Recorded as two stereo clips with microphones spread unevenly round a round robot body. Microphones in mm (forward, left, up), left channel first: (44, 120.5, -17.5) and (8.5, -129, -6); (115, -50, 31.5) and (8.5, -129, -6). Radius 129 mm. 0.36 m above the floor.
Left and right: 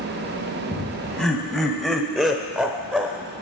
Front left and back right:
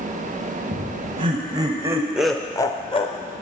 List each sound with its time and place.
0.7 s laughter: 170° left, 2.5 m; by 3.3 s 10° right, 1.4 m